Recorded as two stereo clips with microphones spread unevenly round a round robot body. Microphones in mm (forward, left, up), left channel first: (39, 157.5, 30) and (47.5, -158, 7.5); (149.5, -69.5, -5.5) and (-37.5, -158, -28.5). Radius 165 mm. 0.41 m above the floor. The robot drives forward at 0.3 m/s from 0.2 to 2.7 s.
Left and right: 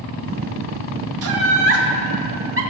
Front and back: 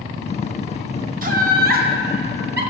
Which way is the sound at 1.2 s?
120° right.